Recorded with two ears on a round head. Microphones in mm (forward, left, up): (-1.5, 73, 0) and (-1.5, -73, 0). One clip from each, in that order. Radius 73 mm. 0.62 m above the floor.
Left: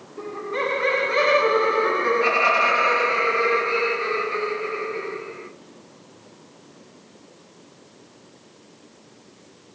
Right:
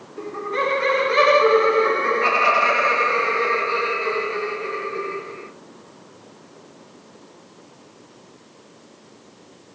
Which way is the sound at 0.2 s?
15° right (ahead or behind).